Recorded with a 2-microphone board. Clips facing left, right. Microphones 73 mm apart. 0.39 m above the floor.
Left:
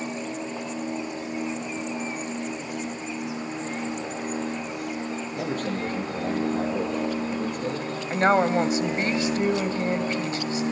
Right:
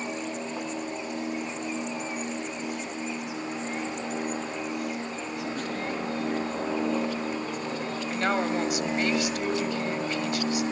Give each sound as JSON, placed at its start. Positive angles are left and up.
{"t": 5.3, "sound": "a man speaking", "side_deg": 50, "distance_m": 9.5}
{"t": 8.1, "sound": "a woman speaking", "side_deg": 30, "distance_m": 1.8}